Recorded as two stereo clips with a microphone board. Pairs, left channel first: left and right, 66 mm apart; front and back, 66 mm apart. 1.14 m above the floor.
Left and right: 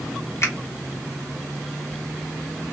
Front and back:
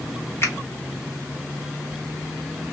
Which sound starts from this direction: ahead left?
A finger snap, at 0.4 s.